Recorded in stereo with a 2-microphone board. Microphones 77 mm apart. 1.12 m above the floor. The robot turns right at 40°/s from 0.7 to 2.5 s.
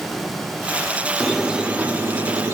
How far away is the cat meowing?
I don't hear a cat meowing.